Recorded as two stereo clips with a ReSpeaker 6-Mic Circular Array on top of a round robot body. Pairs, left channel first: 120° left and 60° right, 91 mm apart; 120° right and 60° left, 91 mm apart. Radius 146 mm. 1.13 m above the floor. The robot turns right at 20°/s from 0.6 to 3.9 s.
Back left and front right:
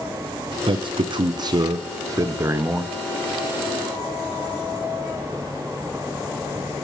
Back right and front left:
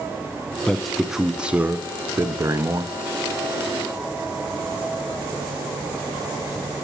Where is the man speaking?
35° right, 0.5 m; by 3.0 s 10° left, 0.5 m.